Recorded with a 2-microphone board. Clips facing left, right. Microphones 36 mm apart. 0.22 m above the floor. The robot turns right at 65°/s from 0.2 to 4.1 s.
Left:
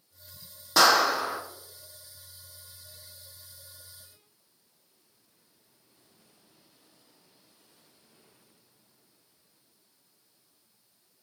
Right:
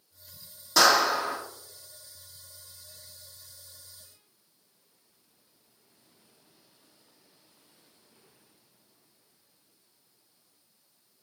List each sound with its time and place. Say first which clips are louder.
0.8 s a clap: even; 155° left, 8 m; by 1.4 s 165° right, 8 m